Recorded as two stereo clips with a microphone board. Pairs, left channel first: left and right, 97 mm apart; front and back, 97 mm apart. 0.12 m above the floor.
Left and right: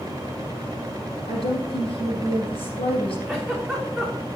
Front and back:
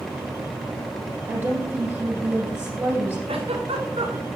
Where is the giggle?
Straight behind, 3 m.